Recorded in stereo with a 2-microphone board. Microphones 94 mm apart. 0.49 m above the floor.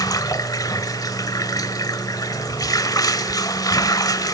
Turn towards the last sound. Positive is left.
turn(degrees=40)  # may be behind; listen again after turning